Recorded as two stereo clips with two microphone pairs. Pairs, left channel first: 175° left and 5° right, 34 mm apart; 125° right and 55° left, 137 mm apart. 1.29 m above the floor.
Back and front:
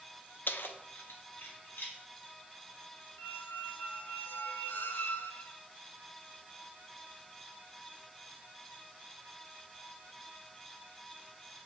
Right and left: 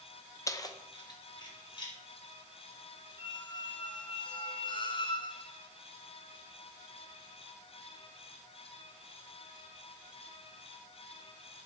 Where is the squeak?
175° right, 0.8 m.